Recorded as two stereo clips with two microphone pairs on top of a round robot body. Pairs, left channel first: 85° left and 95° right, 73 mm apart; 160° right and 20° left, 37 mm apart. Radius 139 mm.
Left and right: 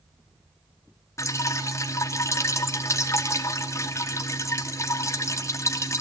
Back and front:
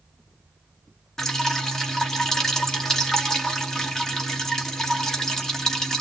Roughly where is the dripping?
Behind left.